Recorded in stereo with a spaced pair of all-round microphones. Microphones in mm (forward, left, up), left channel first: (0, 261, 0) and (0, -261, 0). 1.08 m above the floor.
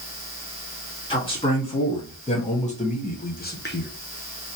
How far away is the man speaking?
About 2.5 m.